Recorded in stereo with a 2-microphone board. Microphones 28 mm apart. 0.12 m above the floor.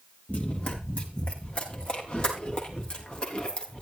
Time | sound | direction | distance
0.3 | running footsteps | 55° left (ahead or behind) | 5.5 m